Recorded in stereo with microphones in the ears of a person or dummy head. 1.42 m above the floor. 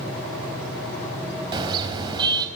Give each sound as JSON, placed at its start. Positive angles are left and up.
{"t": 1.5, "sound": "a car horn", "side_deg": -30, "distance_m": 4.0}